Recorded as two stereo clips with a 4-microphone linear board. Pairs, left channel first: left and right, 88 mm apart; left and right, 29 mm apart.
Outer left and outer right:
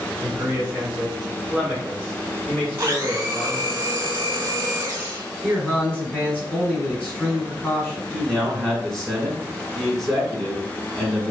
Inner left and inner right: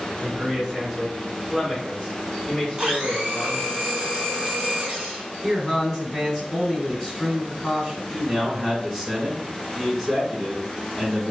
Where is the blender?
25° right (ahead or behind), 1.6 m.